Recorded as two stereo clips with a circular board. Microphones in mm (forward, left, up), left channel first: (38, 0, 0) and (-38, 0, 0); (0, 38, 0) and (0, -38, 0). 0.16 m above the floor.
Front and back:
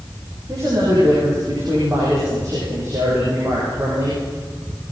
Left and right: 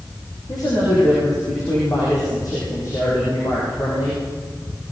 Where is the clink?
I don't hear a clink.